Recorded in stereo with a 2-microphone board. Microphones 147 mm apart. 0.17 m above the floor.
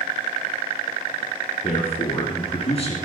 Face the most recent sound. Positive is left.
turn(degrees=45)  # may be behind; listen again after turning